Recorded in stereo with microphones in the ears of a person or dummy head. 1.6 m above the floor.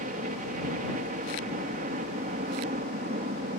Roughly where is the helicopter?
Right.